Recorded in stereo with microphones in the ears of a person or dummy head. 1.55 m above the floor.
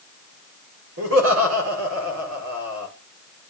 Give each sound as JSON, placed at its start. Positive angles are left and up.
{"t": 1.0, "sound": "laughter", "side_deg": -75, "distance_m": 5.5}